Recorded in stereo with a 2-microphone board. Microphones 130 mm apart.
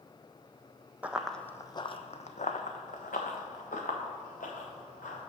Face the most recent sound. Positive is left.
turn(degrees=85)